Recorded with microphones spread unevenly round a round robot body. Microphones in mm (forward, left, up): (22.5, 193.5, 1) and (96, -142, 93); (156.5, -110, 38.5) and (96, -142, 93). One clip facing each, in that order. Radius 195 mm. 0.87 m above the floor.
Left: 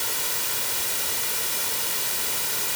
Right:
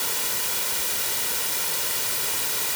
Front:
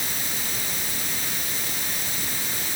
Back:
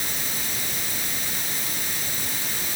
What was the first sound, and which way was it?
Only background noise.